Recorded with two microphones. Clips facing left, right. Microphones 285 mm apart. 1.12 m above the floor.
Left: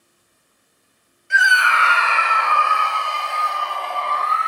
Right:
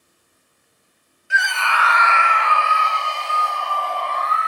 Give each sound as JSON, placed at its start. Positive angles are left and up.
{"t": 1.3, "sound": "a scream", "side_deg": -5, "distance_m": 0.5}